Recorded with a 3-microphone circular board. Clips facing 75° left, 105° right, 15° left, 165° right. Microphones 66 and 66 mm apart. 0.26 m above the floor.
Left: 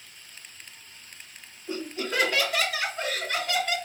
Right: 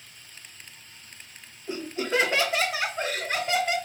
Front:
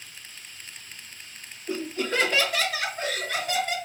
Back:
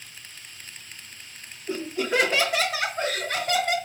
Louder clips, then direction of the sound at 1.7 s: Right 3 dB, back 2 dB; 70° right.